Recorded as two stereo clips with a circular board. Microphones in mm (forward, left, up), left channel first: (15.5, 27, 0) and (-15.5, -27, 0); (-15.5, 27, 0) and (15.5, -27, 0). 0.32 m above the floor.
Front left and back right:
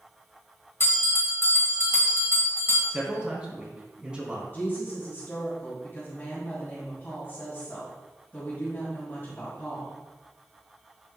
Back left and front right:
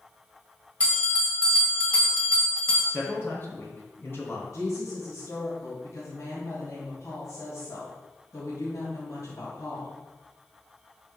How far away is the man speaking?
About 2.5 m.